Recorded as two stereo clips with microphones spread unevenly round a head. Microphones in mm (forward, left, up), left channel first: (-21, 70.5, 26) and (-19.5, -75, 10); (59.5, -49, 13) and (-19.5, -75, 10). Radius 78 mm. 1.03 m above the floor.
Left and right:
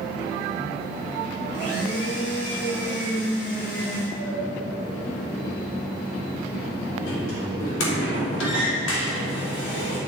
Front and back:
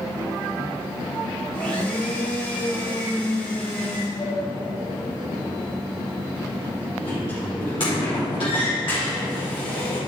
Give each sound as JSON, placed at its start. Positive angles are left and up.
{"t": 1.5, "sound": "a blender", "azimuth_deg": 95, "distance_m": 2.5}
{"t": 4.2, "sound": "a sliding door", "azimuth_deg": 80, "distance_m": 2.0}